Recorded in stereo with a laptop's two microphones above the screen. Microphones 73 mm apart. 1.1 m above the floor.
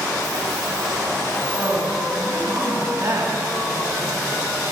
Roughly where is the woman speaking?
Right.